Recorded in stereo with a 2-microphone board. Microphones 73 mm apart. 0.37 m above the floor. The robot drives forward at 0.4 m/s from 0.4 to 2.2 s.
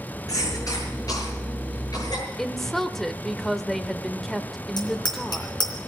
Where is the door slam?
I don't hear a door slam.